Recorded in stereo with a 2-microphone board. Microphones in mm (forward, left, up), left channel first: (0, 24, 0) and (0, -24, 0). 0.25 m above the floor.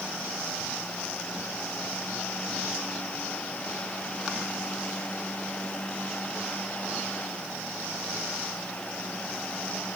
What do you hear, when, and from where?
Only background noise.